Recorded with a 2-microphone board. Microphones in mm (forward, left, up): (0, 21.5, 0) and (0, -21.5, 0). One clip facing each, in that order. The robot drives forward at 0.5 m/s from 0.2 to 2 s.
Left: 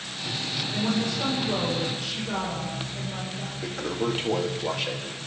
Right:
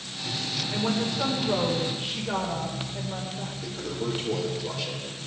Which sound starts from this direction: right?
A woman speaking, at 0.7 s.